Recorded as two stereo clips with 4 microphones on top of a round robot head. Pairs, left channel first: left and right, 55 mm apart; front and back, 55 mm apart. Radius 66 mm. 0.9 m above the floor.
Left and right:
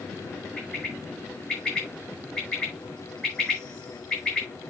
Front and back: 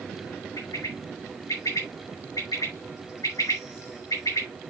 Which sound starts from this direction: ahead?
A bird, at 0.6 s.